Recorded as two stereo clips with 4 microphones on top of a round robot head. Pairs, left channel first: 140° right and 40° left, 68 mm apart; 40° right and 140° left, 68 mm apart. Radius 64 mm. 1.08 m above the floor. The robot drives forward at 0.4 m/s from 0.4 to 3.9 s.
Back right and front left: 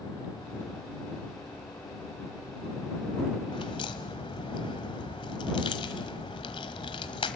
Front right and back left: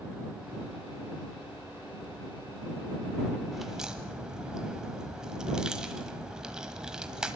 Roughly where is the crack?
Behind right.